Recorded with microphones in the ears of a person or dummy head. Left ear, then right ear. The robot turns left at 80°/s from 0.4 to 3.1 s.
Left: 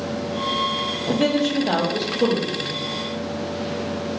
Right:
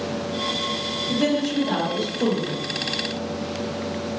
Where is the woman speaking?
115° left, 0.6 m; by 2.7 s 15° right, 0.6 m.